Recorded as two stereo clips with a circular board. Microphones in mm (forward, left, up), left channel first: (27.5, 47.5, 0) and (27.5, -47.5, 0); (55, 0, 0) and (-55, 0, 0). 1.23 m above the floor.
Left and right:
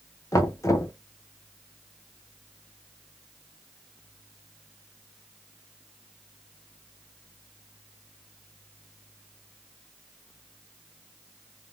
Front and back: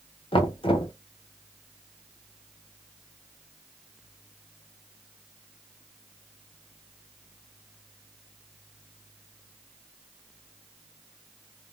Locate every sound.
0.3 s knocking: 30° left, 0.6 m